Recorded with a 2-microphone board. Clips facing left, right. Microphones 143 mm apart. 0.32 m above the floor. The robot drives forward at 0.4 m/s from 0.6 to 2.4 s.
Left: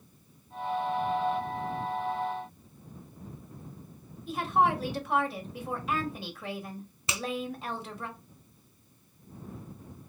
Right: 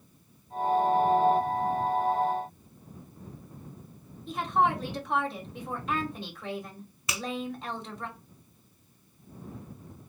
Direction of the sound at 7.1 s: 25° left (ahead or behind).